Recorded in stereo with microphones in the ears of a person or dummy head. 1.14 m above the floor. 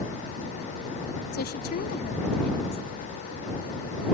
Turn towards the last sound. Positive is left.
turn(degrees=55)  # may be behind; listen again after turning